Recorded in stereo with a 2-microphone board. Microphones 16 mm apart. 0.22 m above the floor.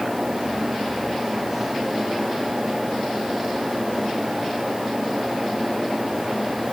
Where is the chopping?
I don't hear chopping.